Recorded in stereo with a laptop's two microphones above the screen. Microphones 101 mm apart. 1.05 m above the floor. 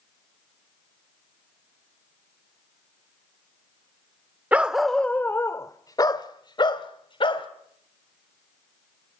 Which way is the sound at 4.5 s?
15° right (ahead or behind).